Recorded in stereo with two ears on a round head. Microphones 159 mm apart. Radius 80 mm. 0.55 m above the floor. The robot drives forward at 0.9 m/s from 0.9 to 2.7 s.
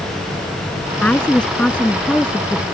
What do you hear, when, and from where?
1.0 s a woman speaking: 5° left (ahead or behind)